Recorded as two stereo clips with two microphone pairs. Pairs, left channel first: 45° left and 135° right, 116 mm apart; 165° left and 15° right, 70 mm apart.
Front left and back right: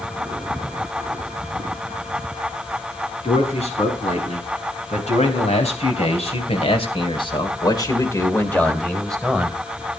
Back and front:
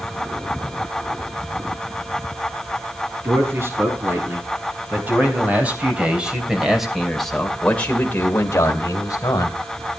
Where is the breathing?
I don't hear breathing.